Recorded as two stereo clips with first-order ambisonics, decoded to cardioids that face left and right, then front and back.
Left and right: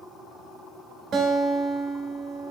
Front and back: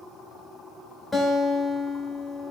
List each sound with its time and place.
1.1 s a guitar: 75° right, 0.7 m